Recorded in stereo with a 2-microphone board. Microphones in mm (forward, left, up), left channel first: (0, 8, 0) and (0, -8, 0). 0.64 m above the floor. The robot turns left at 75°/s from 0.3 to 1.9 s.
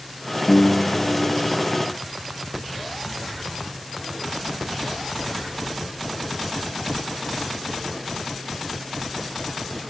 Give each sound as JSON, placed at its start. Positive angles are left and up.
{"t": 0.5, "sound": "a piano", "azimuth_deg": 45}